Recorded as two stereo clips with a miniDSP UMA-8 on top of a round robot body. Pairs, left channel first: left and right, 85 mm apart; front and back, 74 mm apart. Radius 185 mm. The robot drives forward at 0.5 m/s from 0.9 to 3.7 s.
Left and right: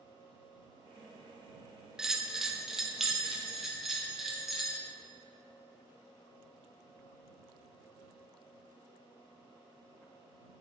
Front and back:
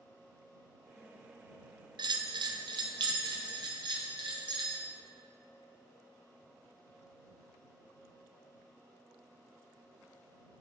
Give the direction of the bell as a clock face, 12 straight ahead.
6 o'clock.